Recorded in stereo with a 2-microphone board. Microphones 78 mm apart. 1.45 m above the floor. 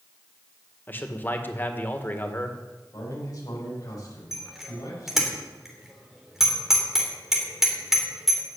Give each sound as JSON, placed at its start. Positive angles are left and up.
{"t": 0.9, "sound": "a man speaking", "side_deg": 25, "distance_m": 1.7}
{"t": 2.9, "sound": "a man speaking", "side_deg": 45, "distance_m": 7.5}
{"t": 4.3, "sound": "a bicycle bell", "side_deg": -5, "distance_m": 3.5}